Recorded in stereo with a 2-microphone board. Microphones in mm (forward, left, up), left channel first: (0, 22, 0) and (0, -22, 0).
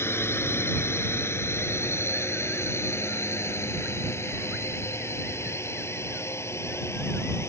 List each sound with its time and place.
0.0 s a drone: 55° left (ahead or behind); by 7.5 s 65° left (ahead or behind)